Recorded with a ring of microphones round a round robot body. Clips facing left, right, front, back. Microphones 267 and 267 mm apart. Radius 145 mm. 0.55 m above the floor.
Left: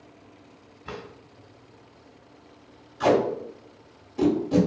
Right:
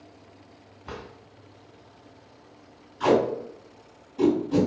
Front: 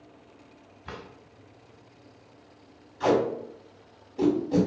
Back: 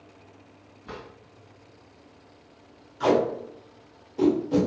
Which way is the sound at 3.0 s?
105° left.